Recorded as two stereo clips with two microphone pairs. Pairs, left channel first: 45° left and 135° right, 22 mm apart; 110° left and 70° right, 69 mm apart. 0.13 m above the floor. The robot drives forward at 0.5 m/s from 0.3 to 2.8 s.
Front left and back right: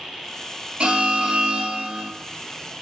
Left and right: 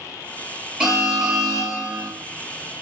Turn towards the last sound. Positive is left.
turn(degrees=-155)